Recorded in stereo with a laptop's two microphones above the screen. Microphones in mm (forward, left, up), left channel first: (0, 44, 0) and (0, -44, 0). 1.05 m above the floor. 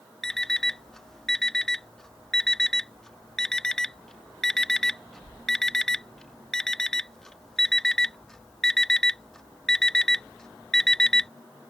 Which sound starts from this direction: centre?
An alarm clock, at 0.2 s.